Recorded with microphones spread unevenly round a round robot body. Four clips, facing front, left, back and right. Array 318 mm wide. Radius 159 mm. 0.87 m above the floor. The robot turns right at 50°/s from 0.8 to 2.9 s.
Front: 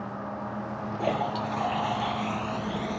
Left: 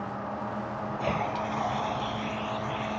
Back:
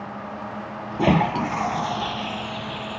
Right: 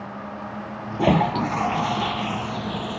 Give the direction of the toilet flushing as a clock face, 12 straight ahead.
5 o'clock.